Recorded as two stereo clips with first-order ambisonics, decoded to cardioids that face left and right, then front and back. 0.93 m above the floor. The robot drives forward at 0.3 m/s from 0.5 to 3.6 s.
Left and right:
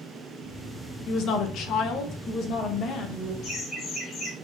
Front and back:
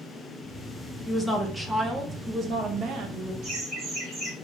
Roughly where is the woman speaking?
Left.